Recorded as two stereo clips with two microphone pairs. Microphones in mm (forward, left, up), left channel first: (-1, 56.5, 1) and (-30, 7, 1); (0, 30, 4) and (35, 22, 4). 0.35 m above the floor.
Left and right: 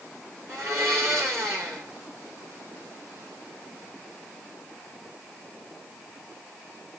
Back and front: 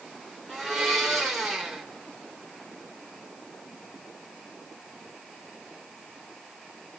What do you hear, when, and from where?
0.5 s a blender: 95° right, 6.5 m